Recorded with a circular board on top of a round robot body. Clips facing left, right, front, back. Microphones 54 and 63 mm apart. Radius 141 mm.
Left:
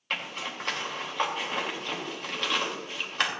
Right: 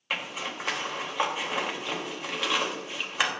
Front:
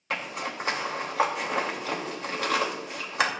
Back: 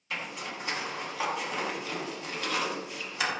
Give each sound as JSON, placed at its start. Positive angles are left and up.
{"t": 0.1, "sound": "a zipper", "azimuth_deg": -10, "distance_m": 3.0}